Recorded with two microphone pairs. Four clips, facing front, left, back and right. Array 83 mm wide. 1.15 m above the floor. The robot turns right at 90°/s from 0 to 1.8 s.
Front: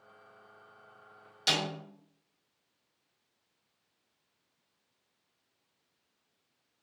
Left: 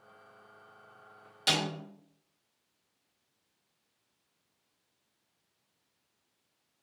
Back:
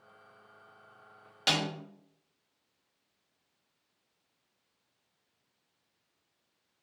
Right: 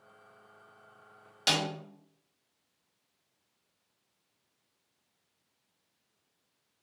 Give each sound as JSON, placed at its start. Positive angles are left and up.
{"t": 1.5, "sound": "a snare drum", "azimuth_deg": -155, "distance_m": 0.9}